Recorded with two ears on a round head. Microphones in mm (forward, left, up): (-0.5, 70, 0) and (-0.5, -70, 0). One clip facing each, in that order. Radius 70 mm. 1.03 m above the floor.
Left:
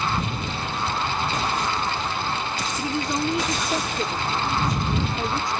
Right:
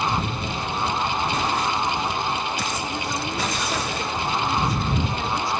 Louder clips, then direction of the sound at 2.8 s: Left 3 dB; 20° left (ahead or behind).